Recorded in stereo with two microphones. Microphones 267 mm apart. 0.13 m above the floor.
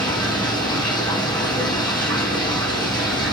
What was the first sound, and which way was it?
Running water, 15° left (ahead or behind).